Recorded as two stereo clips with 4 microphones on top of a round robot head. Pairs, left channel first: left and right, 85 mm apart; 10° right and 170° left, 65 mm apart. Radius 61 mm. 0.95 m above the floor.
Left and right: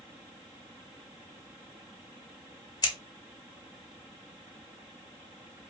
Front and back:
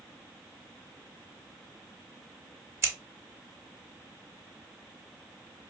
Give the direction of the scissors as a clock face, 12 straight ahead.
8 o'clock.